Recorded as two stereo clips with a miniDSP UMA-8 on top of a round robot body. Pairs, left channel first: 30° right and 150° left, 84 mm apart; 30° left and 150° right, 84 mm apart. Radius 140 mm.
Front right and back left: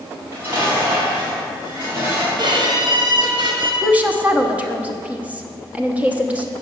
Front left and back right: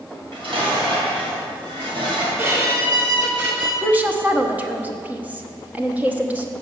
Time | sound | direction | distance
0.1 | dishes clattering | 150° right | 3.5 m
2.4 | a violin | 150° left | 2 m
3.8 | a woman speaking | 170° right | 1.1 m